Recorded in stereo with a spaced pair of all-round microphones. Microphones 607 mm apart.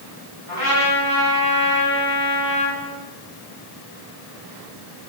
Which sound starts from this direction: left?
A trumpet, at 0.5 s.